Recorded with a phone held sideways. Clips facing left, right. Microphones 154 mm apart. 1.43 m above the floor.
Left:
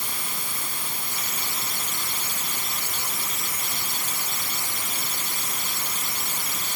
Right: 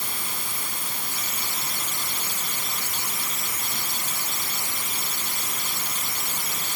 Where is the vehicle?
I don't hear a vehicle.